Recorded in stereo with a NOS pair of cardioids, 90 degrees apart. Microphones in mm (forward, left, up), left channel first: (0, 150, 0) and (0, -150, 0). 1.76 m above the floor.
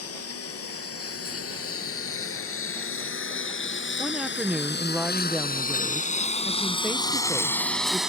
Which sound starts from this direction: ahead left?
A lawn mower, at 0.0 s.